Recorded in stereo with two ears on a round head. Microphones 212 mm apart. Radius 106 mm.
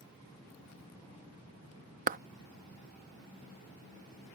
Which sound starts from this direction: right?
A clap, at 2.1 s.